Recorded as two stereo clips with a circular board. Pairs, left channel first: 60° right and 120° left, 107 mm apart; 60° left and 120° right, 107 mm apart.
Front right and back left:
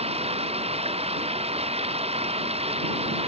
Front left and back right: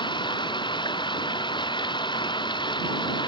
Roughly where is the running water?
Left.